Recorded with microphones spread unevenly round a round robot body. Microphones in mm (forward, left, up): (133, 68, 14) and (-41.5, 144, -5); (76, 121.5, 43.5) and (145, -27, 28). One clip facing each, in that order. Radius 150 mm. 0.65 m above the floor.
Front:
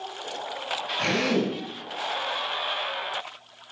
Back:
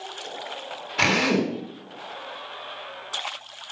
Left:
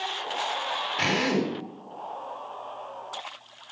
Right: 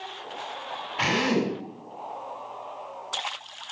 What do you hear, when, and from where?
1.0 s a drill: straight behind, 7.5 m